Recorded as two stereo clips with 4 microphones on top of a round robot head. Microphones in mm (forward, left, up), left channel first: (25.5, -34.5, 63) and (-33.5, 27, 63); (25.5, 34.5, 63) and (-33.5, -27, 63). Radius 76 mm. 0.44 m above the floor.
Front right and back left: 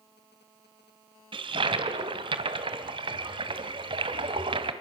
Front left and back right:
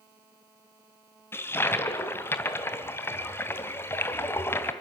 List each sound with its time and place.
1.3 s a toilet flushing: 110° left, 2 m